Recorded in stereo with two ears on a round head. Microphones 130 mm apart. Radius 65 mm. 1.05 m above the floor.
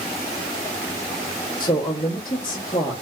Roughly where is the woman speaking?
Left.